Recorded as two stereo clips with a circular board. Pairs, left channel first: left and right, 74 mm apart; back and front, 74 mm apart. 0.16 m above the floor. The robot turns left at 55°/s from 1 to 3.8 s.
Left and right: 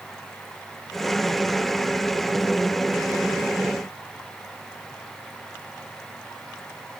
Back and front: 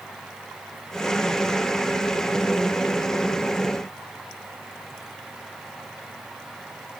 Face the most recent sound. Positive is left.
No sound to turn to.